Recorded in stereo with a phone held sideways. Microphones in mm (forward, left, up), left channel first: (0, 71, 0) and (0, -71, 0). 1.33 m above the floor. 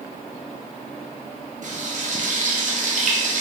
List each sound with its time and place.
1.6 s frying: 60° right (ahead or behind), 0.6 m